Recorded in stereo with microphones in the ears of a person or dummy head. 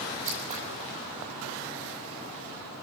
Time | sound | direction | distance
0.2 | scissors | 45° right (ahead or behind) | 8 m